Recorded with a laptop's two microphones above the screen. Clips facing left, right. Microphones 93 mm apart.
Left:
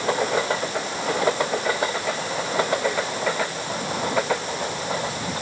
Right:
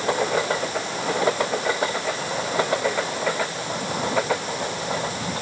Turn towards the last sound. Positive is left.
No sound to turn to.